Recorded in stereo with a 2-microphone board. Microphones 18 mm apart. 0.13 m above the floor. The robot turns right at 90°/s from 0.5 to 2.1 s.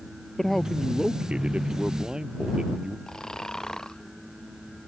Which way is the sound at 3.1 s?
35° left (ahead or behind).